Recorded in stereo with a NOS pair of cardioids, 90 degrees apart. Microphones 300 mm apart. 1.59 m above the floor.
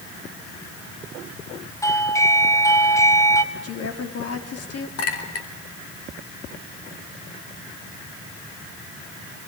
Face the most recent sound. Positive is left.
turn(degrees=55)